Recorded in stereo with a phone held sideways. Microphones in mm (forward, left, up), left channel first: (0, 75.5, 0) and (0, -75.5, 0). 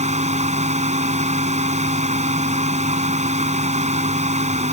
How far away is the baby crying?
No baby crying in this recording.